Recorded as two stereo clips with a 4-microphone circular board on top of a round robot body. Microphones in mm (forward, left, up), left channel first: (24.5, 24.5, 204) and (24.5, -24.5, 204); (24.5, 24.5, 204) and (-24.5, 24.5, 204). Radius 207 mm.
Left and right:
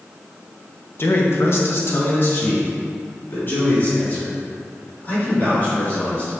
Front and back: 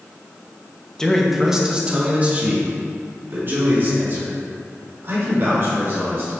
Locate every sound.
1.0 s a man speaking: 75° left, 1.6 m; by 6.3 s 145° left, 7 m